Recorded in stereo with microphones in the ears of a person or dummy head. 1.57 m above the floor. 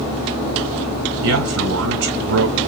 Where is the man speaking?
70° right (ahead or behind), 1.0 m.